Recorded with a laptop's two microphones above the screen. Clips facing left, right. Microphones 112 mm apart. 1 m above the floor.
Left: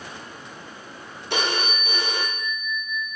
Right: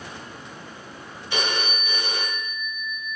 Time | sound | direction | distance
1.3 | a phone ringing | 65° left (ahead or behind) | 1.6 m